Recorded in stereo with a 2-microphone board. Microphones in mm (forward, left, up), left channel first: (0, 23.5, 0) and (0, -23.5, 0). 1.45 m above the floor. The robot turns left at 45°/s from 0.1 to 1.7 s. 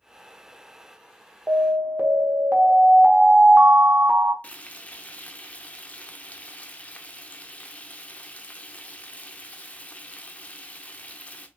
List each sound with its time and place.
1.5 s an alarm: 30° right (ahead or behind), 1.1 m; by 4.3 s 40° right (ahead or behind), 1.1 m
4.4 s frying: 30° left (ahead or behind), 0.5 m